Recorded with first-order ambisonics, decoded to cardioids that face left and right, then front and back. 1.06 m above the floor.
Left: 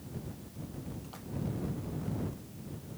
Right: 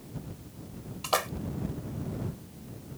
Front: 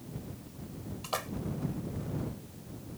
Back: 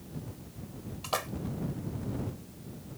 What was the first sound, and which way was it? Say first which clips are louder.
A splash: right 21 dB, back 3 dB; 100° right.